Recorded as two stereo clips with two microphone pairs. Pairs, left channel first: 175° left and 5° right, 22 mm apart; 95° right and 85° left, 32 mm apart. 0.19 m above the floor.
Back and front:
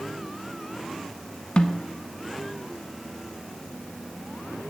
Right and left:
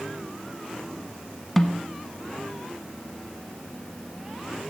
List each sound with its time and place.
1.6 s a snare drum: 170° right, 0.8 m